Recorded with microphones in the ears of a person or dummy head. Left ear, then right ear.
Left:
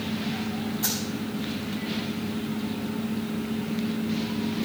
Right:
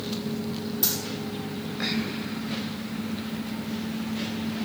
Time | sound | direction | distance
0.8 | a dropped coin | 40° right (ahead or behind) | 3 m